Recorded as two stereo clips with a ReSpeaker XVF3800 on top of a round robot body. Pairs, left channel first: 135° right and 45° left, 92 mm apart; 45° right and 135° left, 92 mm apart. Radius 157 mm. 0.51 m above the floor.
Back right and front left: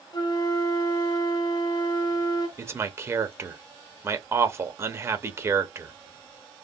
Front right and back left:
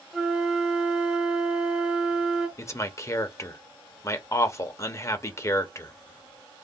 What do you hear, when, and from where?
0.1 s a flute: 145° right, 1.0 m
2.6 s a man speaking: 5° right, 0.9 m